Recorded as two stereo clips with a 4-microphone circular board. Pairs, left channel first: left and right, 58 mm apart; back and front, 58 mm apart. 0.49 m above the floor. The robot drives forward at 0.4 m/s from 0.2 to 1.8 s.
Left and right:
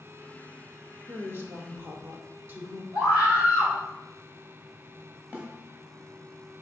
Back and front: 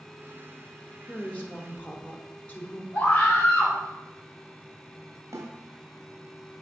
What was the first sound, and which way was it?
A woman speaking, 115° right.